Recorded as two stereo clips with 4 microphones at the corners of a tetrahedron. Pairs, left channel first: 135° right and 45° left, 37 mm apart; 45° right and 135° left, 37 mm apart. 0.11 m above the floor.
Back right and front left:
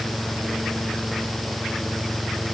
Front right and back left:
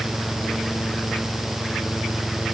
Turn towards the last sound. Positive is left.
No sound to turn to.